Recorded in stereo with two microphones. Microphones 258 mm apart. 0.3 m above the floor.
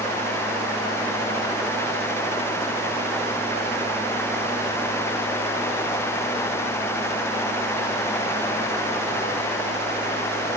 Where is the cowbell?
No cowbell in this recording.